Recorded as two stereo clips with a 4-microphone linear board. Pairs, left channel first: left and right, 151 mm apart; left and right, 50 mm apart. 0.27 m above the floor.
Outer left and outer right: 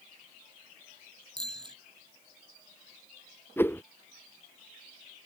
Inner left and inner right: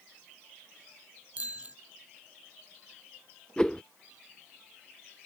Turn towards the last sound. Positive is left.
turn(degrees=15)  # may be behind; listen again after turning